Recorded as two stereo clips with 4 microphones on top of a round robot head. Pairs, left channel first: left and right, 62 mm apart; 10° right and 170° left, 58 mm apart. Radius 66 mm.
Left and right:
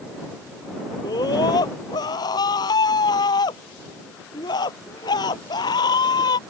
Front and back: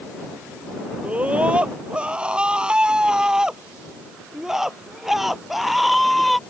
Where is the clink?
No clink in this recording.